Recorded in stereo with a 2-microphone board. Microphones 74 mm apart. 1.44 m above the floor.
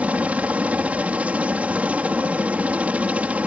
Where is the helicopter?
20° right (ahead or behind).